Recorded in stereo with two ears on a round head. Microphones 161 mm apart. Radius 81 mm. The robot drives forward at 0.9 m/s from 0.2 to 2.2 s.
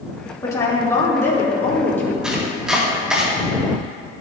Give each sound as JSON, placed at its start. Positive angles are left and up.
{"t": 0.4, "sound": "a woman speaking", "side_deg": 20, "distance_m": 2.5}
{"t": 2.2, "sound": "chopping", "side_deg": -5, "distance_m": 1.9}